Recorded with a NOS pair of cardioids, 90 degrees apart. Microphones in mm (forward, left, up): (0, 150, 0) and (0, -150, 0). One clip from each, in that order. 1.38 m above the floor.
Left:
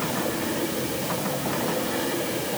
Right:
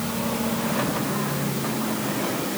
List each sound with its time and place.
Only background noise.